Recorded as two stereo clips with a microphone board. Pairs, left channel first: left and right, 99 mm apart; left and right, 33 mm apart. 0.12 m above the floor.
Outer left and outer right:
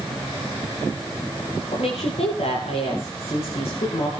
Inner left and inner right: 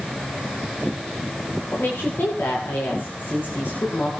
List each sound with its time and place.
1.7 s a woman speaking: 85° left, 10 m